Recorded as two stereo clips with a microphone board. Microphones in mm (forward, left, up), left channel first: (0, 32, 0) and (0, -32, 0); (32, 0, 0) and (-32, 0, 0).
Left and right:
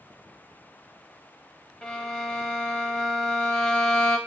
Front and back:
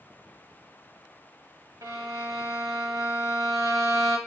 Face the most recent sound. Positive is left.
turn(degrees=170)